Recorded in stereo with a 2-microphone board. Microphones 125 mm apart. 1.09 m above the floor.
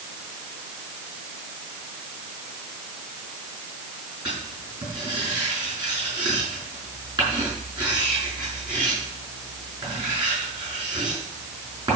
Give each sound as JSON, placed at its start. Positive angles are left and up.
{"t": 4.2, "sound": "writing", "side_deg": -35, "distance_m": 6.0}